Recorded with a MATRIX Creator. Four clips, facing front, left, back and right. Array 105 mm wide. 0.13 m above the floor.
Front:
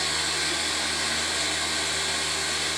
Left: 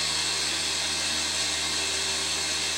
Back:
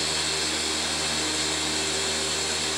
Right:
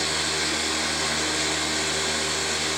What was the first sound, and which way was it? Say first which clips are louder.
Running water: right 7 dB, even; 55° right.